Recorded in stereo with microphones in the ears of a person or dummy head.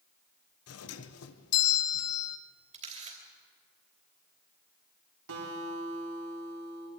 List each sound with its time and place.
0.7 s a doorbell: 85° left, 1.2 m
2.7 s a camera shutter: 35° right (ahead or behind), 3.5 m
5.3 s a guitar: 80° right, 4.5 m